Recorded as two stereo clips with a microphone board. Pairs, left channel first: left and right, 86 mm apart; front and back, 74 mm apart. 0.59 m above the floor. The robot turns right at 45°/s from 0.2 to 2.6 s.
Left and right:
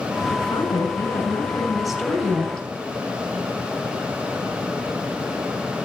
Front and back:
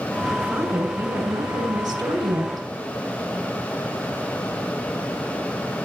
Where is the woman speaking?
110° left, 5 m; by 2.7 s 145° right, 5 m.